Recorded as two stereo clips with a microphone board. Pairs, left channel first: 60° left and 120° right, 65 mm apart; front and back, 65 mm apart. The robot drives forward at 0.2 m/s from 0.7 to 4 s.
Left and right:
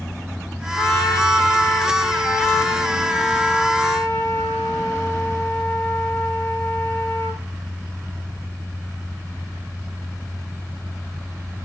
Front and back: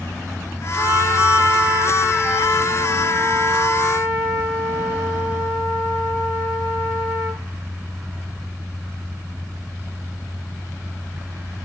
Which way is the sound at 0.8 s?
120° left.